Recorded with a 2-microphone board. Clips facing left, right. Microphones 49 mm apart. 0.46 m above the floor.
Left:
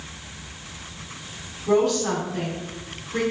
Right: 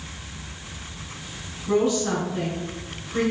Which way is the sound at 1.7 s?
65° left (ahead or behind).